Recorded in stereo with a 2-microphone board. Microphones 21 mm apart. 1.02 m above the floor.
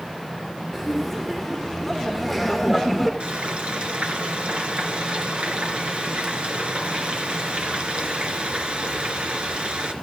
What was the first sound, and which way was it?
Laughter, 5° right (ahead or behind).